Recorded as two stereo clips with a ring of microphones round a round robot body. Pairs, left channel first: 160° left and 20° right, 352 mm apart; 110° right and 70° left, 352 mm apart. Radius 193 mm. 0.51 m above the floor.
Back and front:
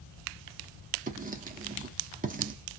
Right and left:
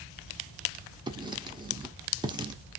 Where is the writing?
5° left, 0.7 m.